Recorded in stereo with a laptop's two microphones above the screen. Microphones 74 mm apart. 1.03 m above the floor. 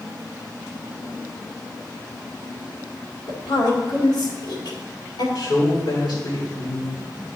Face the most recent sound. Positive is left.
turn(degrees=70)  # may be behind; listen again after turning